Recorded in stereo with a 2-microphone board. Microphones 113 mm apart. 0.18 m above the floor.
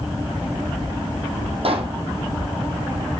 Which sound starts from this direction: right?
A pop, at 1.6 s.